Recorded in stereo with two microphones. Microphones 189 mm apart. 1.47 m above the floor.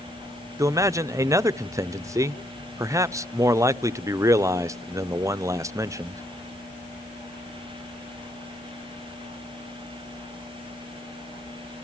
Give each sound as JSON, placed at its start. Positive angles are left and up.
{"t": 0.6, "sound": "a man speaking", "side_deg": -15, "distance_m": 0.5}